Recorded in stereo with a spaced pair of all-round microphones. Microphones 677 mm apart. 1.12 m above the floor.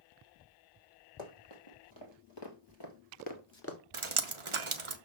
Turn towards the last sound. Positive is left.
turn(degrees=-45)  # may be behind; listen again after turning